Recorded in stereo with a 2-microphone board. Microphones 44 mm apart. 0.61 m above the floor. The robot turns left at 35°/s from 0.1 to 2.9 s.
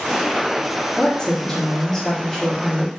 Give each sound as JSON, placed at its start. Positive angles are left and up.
{"t": 1.0, "sound": "a woman speaking", "side_deg": 25, "distance_m": 1.0}